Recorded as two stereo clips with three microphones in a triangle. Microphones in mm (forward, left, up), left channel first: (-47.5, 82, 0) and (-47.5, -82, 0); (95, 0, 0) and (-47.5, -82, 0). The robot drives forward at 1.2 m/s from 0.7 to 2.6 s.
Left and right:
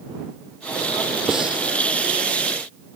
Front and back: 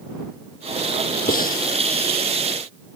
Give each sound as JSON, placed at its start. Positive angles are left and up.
{"t": 1.3, "sound": "breathing", "azimuth_deg": -5}